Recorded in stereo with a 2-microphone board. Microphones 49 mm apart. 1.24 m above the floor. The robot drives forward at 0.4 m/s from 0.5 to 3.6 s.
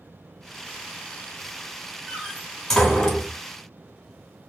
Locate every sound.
2.1 s a door slam: 10° left (ahead or behind), 1.8 m; by 3.4 s 15° left (ahead or behind), 1.3 m